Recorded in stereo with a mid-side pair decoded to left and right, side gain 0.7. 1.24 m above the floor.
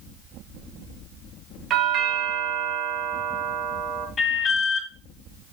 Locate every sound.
1.7 s a doorbell: 40° right, 2.0 m
4.2 s an alarm: 30° left, 3.5 m